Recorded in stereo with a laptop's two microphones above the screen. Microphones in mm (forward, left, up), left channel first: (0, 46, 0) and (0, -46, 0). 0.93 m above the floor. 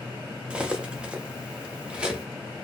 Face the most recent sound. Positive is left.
turn(degrees=-10)  # may be behind; listen again after turning